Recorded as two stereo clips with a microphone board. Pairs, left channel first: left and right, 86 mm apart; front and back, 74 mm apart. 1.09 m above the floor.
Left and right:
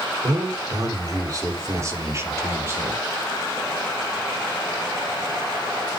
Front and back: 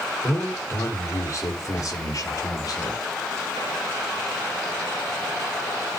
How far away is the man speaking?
About 3.5 m.